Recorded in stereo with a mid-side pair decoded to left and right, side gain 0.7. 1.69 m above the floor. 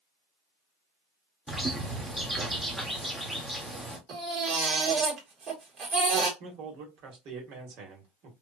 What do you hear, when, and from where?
1.5 s a bird: 5° right, 1.0 m
4.1 s a baby crying: 40° right, 1.7 m
6.4 s a man speaking: 55° right, 1.6 m